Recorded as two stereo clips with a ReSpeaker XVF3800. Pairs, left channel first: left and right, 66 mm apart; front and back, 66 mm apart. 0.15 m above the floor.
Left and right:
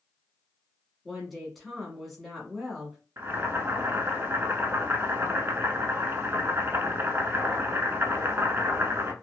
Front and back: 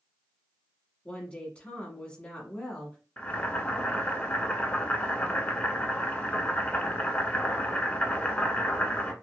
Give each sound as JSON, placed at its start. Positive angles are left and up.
{"t": 1.1, "sound": "a woman speaking", "azimuth_deg": 0, "distance_m": 1.0}
{"t": 3.2, "sound": "boiling", "azimuth_deg": -55, "distance_m": 0.7}